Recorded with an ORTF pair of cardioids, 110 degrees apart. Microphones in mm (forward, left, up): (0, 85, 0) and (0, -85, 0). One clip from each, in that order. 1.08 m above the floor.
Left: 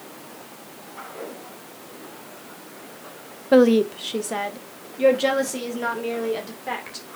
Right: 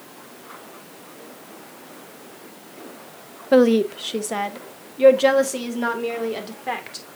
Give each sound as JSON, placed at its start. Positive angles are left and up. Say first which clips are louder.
{"t": 3.5, "sound": "a woman speaking", "louder": "even", "azimuth_deg": -5, "distance_m": 0.7}